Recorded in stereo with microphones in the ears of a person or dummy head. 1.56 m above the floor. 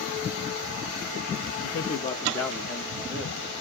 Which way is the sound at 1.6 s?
75° left (ahead or behind).